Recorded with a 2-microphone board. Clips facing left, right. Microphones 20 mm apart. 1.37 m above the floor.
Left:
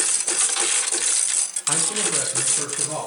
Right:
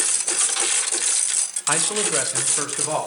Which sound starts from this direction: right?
A man speaking, at 1.7 s.